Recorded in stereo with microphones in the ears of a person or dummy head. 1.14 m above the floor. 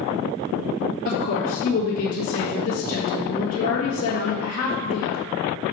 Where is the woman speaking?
40° left (ahead or behind), 1.7 m.